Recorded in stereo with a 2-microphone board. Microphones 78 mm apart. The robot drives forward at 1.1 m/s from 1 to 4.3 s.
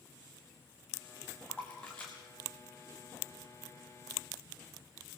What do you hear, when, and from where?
1.5 s a splash: 15° left (ahead or behind), 4 m; by 3.6 s 10° left (ahead or behind), 6.5 m